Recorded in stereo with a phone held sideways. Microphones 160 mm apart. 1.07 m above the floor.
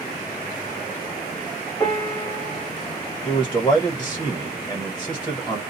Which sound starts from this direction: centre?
A man speaking, at 3.2 s.